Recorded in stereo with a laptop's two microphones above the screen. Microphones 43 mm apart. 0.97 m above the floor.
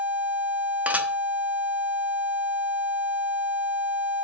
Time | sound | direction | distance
0.9 | dishes clattering | 40° right (ahead or behind) | 0.9 m